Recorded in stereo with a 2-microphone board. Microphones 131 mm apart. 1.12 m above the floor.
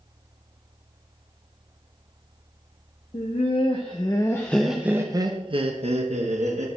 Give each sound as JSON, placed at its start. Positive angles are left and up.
{"t": 3.1, "sound": "laughter", "side_deg": 55, "distance_m": 1.0}